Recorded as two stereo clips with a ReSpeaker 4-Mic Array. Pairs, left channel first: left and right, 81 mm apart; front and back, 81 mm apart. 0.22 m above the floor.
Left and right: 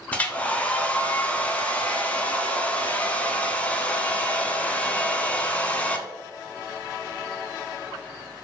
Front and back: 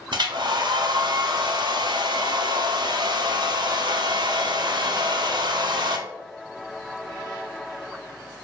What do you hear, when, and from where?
0.1 s a hair dryer: 160° left, 0.5 m